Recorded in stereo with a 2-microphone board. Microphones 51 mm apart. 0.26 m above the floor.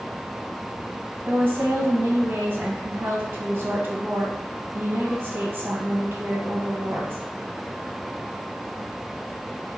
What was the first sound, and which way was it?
A woman speaking, 45° right (ahead or behind).